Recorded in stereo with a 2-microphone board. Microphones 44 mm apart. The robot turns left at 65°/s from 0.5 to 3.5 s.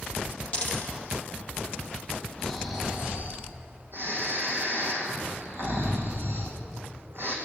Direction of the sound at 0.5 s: 30° left (ahead or behind).